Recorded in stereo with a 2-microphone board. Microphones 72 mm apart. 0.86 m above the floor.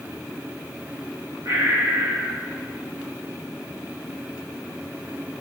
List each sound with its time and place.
1.4 s breathing: 60° right (ahead or behind), 0.7 m